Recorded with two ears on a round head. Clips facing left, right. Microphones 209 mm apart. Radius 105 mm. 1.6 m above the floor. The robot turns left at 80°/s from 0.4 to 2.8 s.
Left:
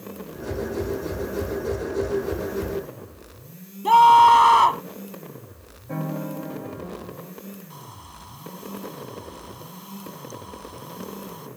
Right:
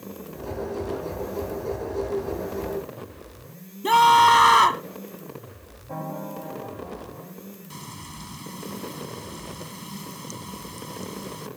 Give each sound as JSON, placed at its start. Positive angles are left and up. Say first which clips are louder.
{"t": 3.8, "sound": "a scream", "louder": "left 3 dB", "side_deg": -25}
{"t": 5.9, "sound": "a piano", "louder": "left 4 dB", "side_deg": 30}
{"t": 7.7, "sound": "frying", "louder": "right 4 dB", "side_deg": -35}